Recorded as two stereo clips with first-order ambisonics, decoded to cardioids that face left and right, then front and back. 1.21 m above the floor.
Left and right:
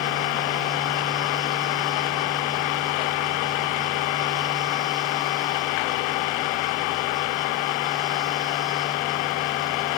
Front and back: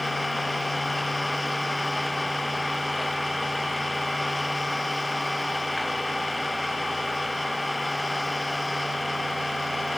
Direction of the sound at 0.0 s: 85° left.